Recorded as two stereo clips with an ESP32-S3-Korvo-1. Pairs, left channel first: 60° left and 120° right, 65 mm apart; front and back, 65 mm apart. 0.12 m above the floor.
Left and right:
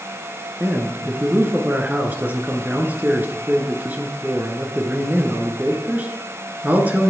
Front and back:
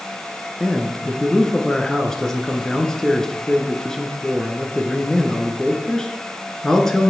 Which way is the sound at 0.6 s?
80° right.